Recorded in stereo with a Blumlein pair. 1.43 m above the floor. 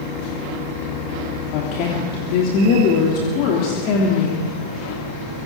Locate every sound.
1.5 s a woman speaking: 40° left, 3 m